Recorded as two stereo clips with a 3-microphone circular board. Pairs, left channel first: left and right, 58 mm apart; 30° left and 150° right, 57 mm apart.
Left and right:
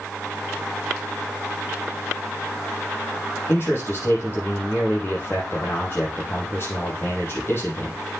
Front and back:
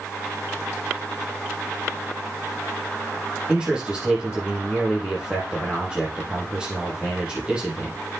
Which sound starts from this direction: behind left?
A man speaking, at 3.5 s.